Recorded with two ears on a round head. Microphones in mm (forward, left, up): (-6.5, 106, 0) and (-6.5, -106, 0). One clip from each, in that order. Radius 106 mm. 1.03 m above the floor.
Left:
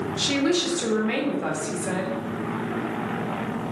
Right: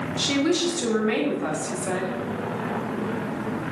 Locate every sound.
0.2 s a woman speaking: centre (ahead or behind), 1.6 m